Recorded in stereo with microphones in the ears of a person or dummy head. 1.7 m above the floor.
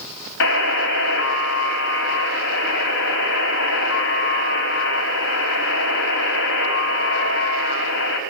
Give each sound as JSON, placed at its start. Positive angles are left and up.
{"t": 0.4, "sound": "a buzzer", "side_deg": 60, "distance_m": 6.0}